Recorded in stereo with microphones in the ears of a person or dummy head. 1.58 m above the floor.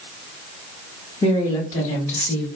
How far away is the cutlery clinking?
I don't hear cutlery clinking.